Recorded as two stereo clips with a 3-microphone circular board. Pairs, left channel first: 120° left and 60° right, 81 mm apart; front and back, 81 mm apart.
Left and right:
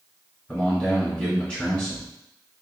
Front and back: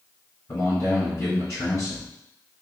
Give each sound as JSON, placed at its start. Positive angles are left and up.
{"t": 0.5, "sound": "a man speaking", "azimuth_deg": 45, "distance_m": 1.4}